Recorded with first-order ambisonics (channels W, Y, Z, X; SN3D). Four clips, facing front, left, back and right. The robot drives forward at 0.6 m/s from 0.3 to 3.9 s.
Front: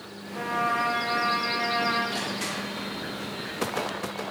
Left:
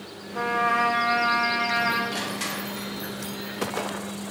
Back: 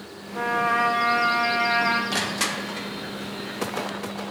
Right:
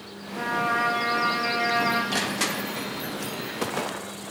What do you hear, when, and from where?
0.3 s a trumpet: 120° left, 0.7 m; by 2.0 s 160° left, 1.4 m
2.1 s crushing: 150° right, 0.6 m; by 2.9 s 165° right, 1.0 m